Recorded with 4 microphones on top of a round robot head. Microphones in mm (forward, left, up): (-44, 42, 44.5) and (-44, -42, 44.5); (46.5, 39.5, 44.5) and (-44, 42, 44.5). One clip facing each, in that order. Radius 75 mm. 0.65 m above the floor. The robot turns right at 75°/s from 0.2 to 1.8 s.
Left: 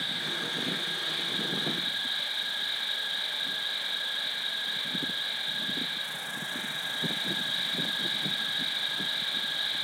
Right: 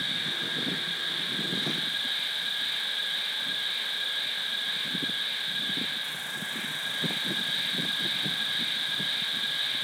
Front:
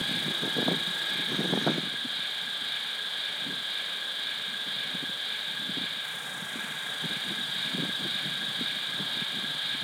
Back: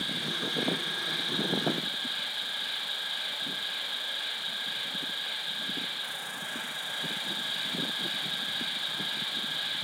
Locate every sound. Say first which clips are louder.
0.0 s an insect: even, front 1 dB; 20° left, 5 m; by 9.9 s 140° left, 5 m